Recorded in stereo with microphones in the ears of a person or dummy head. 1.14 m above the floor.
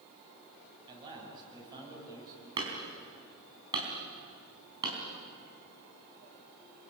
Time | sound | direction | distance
0.9 | a man speaking | 25° right (ahead or behind) | 9 m
2.6 | hammering | 25° right (ahead or behind) | 4.5 m